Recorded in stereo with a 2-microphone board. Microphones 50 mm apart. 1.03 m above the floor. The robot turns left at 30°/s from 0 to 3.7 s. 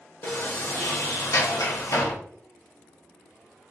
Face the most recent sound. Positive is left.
turn(degrees=40)